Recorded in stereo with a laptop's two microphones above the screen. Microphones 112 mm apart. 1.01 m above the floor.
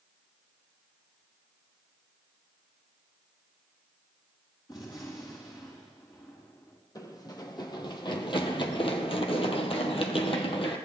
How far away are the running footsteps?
About 2.5 m.